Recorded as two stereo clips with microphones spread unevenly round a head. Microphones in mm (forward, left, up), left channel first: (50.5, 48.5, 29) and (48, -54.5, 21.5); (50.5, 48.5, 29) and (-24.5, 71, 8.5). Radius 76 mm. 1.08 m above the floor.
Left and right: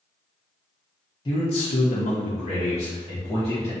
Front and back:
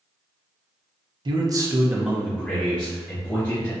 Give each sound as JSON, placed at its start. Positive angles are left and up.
{"t": 1.2, "sound": "a man speaking", "azimuth_deg": 145, "distance_m": 0.7}